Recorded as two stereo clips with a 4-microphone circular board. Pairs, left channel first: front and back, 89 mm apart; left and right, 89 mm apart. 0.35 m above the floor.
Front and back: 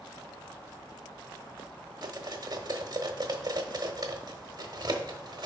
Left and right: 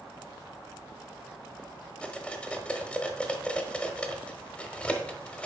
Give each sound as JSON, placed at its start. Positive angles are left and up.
{"t": 2.0, "sound": "cutlery clinking", "azimuth_deg": 165, "distance_m": 0.9}